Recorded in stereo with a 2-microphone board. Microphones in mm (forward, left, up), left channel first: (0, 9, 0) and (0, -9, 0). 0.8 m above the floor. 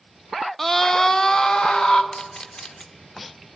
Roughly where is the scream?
Centre.